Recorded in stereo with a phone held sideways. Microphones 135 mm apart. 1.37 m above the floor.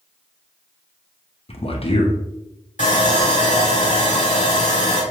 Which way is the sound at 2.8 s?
80° left.